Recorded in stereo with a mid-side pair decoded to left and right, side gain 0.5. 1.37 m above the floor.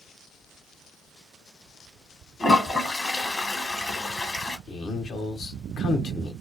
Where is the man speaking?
60° left, 0.9 m.